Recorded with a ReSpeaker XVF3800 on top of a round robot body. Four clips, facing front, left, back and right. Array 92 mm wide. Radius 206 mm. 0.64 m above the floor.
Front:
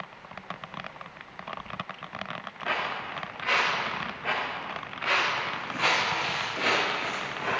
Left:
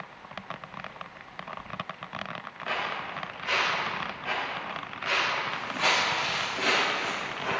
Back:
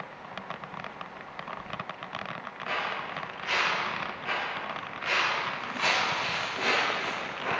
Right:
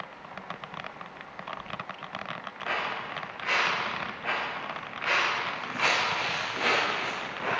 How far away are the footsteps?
About 4 m.